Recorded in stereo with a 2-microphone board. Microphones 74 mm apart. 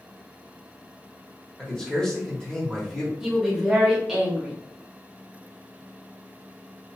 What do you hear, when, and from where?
1.6 s a man speaking: 10° left (ahead or behind), 1.1 m
3.2 s a woman speaking: 10° right (ahead or behind), 1.1 m